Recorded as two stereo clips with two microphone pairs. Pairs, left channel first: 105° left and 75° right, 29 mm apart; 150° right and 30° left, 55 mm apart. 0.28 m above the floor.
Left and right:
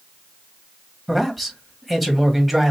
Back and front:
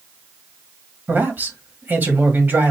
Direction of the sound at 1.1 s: 10° left.